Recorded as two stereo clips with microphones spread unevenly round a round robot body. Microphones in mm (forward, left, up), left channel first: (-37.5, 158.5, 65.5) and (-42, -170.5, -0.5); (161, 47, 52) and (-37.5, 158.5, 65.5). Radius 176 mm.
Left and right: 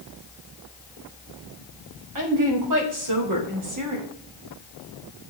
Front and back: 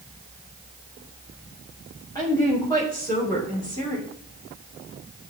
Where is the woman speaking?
105° right, 4 m; by 4.1 s 100° right, 2.5 m.